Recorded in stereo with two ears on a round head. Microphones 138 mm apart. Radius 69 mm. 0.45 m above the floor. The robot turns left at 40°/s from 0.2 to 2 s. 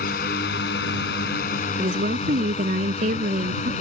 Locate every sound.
0.0 s a drone: 60° left (ahead or behind); by 3.8 s 45° left (ahead or behind)
1.8 s a woman speaking: 40° right (ahead or behind); by 3.7 s 50° right (ahead or behind)